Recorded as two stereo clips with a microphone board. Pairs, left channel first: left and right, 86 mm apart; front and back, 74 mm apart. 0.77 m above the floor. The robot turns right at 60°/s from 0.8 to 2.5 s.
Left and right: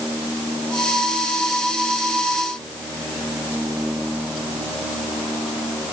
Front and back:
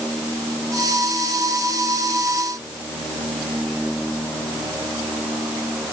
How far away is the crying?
I don't hear crying.